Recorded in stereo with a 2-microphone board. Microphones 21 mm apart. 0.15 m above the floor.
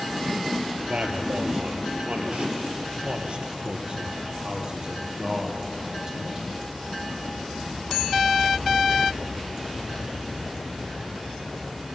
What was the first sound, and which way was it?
A man speaking, 65° right (ahead or behind).